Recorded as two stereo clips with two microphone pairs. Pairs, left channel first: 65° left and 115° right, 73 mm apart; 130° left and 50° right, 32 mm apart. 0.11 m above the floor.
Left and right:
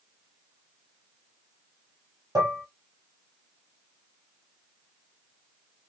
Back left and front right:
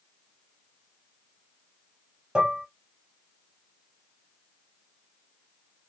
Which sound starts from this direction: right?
Dishes clattering, at 2.4 s.